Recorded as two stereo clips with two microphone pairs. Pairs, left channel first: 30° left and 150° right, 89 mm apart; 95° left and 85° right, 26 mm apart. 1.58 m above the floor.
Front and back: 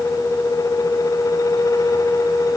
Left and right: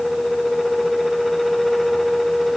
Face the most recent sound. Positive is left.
No sound to turn to.